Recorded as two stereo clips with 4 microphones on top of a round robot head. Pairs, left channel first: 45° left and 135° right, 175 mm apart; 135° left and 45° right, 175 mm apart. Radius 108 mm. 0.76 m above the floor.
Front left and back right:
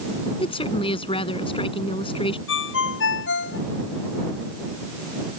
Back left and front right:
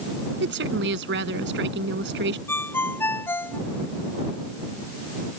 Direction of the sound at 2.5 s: 55° left.